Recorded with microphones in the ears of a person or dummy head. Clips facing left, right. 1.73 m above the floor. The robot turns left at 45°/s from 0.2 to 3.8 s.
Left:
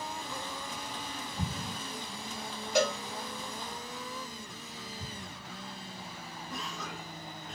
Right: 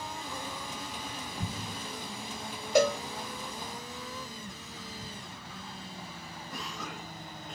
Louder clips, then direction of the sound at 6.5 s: Even; 10° right (ahead or behind).